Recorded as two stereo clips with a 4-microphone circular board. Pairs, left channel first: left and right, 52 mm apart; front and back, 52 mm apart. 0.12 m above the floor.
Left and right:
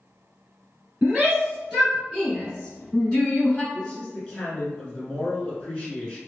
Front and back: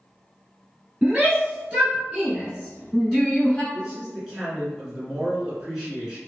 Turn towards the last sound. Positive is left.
turn(degrees=120)